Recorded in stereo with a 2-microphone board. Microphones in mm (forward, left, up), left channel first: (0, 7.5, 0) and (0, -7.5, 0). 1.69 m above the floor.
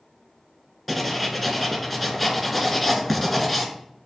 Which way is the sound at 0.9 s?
5° right (ahead or behind).